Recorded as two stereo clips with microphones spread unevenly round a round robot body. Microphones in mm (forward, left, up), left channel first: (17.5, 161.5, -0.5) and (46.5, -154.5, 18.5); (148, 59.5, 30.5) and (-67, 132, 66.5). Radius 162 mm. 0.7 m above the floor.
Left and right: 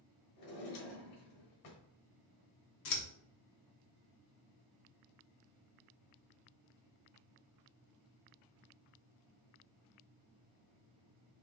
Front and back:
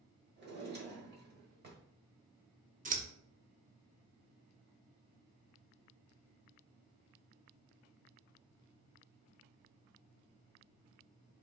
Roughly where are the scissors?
Left.